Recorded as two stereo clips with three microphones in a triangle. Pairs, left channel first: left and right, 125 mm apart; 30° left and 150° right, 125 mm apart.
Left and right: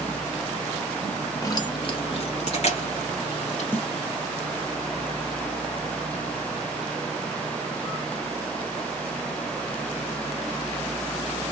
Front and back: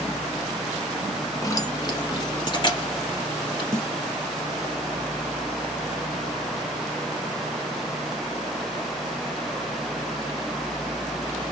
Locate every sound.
1.4 s keys jangling: 60° left, 0.9 m; by 3.6 s 75° left, 2.5 m
3.7 s a snare drum: 155° left, 0.9 m